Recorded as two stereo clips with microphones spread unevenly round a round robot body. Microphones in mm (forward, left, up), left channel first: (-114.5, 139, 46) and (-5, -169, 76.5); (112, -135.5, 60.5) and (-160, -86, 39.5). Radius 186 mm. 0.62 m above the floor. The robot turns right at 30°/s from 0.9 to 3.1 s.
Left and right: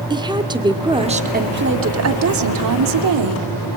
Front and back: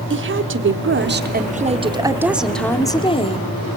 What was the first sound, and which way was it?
A woman speaking, 150° right.